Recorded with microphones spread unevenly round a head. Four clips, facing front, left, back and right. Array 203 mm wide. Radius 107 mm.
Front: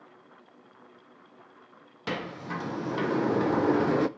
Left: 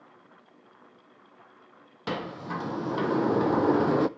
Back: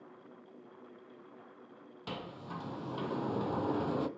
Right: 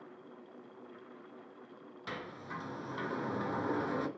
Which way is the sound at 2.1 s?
60° left.